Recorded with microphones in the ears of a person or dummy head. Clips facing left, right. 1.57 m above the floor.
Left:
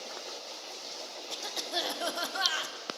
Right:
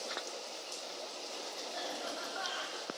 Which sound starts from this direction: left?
A cough, at 1.3 s.